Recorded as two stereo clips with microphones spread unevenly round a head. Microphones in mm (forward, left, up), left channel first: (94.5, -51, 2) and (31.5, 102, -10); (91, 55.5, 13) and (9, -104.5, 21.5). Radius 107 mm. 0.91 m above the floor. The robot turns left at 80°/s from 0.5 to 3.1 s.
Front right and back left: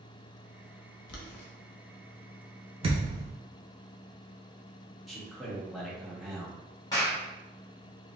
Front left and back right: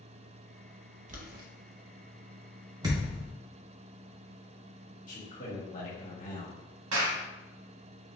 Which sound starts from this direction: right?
Boiling, at 1.1 s.